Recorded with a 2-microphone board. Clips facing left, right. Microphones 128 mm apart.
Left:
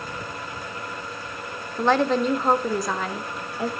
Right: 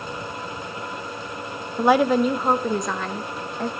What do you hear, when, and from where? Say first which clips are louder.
1.8 s a woman speaking: right 3 dB; 10° right (ahead or behind), 0.8 m; by 3.7 s 10° left (ahead or behind), 1.4 m